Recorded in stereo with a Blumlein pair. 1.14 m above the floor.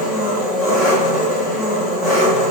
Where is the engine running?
5° right, 1.4 m.